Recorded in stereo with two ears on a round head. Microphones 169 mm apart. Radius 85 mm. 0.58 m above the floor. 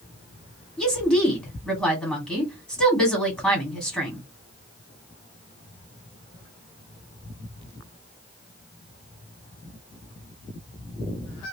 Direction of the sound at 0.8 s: 5° left (ahead or behind).